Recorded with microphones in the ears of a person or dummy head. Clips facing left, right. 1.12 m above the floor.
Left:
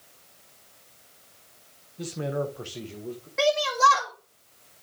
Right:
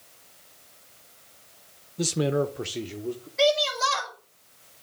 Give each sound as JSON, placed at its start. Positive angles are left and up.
{"t": 2.0, "sound": "a man speaking", "side_deg": -55, "distance_m": 0.6}
{"t": 3.4, "sound": "a shout", "side_deg": 65, "distance_m": 2.0}